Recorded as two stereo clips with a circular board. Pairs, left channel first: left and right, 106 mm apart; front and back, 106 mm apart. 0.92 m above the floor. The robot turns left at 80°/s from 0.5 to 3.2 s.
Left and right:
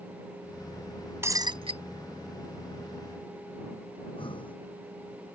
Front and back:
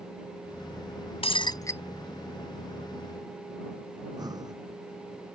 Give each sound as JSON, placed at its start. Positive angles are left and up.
{"t": 1.2, "sound": "breaking glass", "azimuth_deg": -25}
{"t": 4.0, "sound": "breathing", "azimuth_deg": 130}